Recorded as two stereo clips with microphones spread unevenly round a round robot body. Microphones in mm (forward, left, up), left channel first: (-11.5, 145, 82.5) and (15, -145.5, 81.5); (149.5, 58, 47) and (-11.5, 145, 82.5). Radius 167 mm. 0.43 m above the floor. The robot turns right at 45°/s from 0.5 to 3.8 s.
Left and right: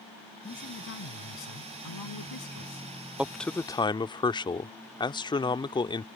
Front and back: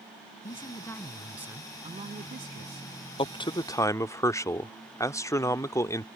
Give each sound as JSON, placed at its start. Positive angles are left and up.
{"t": 0.4, "sound": "a man speaking", "azimuth_deg": 30}
{"t": 3.2, "sound": "a man speaking", "azimuth_deg": 0}